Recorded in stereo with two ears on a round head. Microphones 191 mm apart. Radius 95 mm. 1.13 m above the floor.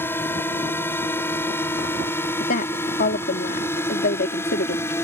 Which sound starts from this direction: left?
A woman speaking, at 2.4 s.